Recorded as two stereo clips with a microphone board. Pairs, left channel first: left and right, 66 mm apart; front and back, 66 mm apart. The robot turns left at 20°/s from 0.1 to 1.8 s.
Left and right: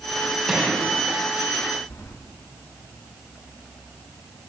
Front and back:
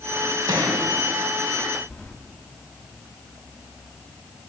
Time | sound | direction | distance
0.5 | a gunshot | 170° right | 1.6 m
1.9 | keys jangling | 60° left | 1.5 m